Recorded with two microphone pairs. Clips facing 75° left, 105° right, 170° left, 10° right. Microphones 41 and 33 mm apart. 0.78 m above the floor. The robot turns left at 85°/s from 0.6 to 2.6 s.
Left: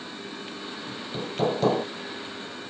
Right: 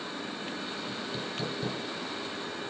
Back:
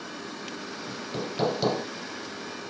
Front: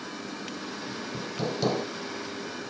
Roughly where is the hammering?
Behind.